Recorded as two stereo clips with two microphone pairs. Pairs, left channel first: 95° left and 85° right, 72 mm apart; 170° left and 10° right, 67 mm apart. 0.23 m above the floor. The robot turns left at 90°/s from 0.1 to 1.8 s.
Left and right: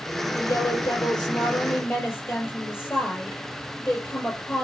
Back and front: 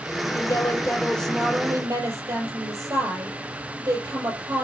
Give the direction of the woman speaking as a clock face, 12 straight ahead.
6 o'clock.